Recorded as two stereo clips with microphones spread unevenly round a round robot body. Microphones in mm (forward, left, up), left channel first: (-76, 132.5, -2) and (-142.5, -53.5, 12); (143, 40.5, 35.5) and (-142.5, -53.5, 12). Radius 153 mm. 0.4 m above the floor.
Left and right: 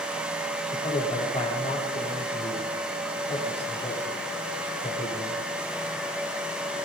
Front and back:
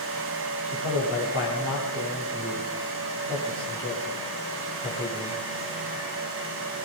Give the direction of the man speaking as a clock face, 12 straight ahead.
8 o'clock.